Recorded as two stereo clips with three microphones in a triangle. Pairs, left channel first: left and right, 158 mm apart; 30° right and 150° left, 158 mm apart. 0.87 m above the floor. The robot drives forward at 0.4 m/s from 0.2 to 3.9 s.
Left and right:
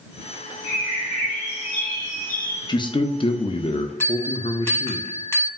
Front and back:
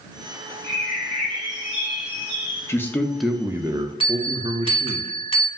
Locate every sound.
0.6 s a bird: 45° left, 1.7 m; by 2.8 s 80° left, 1.4 m
2.7 s a man speaking: 35° left, 0.6 m; by 5.0 s 115° left, 0.5 m
4.0 s a bell: 15° left, 0.8 m